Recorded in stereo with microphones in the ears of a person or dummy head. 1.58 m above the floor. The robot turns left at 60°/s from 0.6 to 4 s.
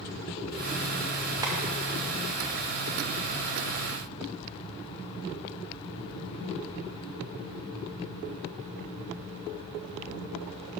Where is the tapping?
20° right (ahead or behind), 0.8 m; by 1.6 s 15° right (ahead or behind), 0.8 m.